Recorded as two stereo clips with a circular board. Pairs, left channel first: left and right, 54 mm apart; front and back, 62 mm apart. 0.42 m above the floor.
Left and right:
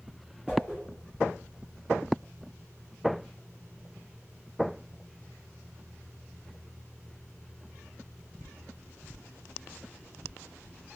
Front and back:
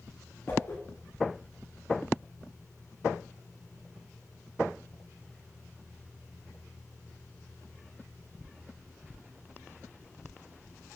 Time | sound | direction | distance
0.5 | a whoosh | 25° right | 1.5 m